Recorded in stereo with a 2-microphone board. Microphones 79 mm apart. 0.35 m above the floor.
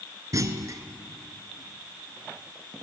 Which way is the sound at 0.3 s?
45° right (ahead or behind).